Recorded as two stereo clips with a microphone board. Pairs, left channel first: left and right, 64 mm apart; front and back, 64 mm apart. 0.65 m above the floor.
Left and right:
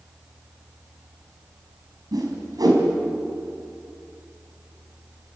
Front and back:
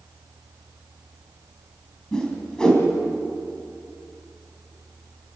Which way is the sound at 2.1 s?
80° right.